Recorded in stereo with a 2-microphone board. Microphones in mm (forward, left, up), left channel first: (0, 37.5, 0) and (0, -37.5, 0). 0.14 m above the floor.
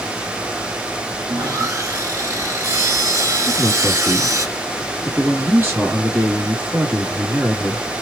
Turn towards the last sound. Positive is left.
turn(degrees=-30)  # may be behind; listen again after turning